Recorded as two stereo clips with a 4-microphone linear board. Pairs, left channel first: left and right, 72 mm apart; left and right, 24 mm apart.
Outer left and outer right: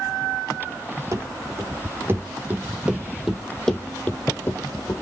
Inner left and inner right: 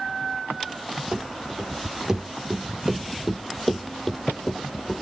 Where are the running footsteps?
45° right (ahead or behind), 2.5 m; by 5.0 s 45° left (ahead or behind), 1.6 m.